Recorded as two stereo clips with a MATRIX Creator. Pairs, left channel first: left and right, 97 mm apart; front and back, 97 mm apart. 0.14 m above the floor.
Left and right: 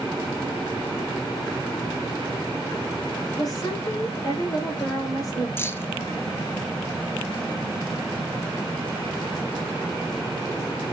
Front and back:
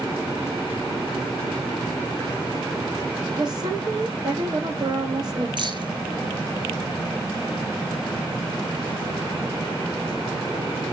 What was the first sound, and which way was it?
A woman speaking, 135° left.